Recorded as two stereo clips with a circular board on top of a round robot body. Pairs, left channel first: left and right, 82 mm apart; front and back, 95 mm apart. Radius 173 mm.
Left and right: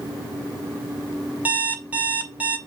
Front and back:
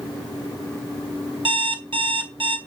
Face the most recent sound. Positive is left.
turn(degrees=-160)